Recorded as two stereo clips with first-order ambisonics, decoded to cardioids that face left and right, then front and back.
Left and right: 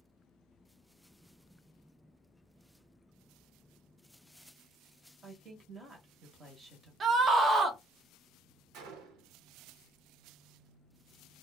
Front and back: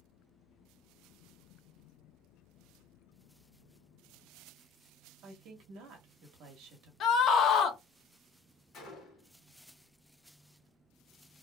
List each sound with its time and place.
5.2 s a woman speaking: 160° right, 0.9 m
7.0 s a scream: 35° right, 0.5 m
8.7 s a gunshot: 55° right, 0.9 m